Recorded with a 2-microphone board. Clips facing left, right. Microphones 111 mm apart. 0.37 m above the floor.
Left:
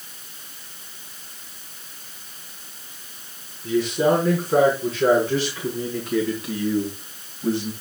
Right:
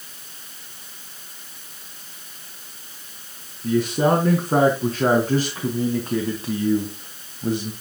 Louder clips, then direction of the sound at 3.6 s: Even; 50° right (ahead or behind).